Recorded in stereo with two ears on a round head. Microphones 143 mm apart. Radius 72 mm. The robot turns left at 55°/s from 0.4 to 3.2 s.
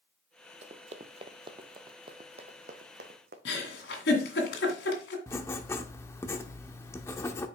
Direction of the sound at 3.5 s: 75° left (ahead or behind).